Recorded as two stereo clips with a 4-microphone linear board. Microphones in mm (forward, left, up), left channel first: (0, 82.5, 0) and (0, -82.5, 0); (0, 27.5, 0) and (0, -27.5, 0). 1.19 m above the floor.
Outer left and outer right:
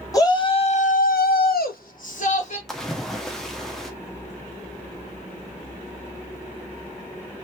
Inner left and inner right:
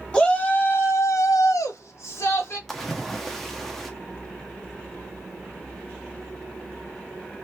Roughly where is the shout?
Left.